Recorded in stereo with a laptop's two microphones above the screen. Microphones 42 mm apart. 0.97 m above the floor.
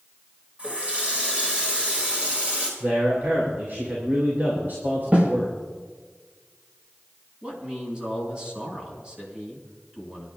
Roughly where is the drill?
I don't hear a drill.